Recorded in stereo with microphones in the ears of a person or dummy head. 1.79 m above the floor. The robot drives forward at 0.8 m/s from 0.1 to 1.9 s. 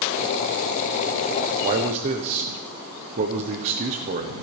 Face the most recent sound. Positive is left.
turn(degrees=-30)  # may be behind; listen again after turning